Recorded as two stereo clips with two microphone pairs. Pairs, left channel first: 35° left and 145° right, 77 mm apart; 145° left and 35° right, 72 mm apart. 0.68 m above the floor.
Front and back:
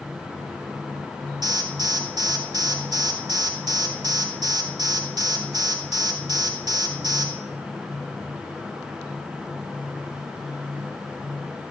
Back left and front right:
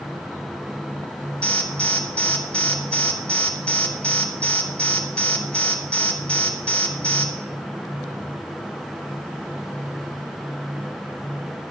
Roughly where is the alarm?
Behind right.